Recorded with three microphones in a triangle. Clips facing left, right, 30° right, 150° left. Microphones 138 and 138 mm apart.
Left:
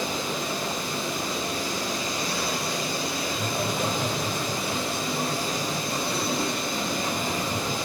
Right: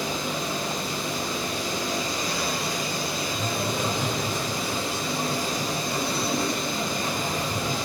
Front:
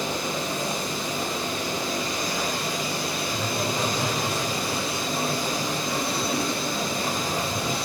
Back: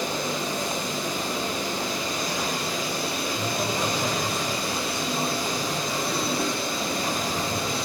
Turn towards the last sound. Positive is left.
turn(degrees=30)